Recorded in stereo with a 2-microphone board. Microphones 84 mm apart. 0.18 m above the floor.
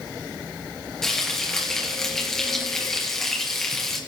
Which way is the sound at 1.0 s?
5° left (ahead or behind).